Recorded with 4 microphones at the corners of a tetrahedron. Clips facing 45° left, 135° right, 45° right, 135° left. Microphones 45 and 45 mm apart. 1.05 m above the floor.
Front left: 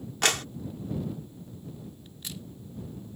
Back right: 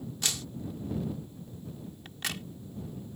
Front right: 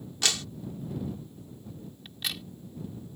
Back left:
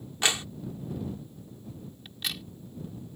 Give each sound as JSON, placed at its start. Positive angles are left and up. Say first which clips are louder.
{"t": 0.2, "sound": "a clap", "louder": "front left 10 dB, back left 2 dB", "azimuth_deg": 70}
{"t": 2.0, "sound": "a crack", "louder": "back right 10 dB, even", "azimuth_deg": -135}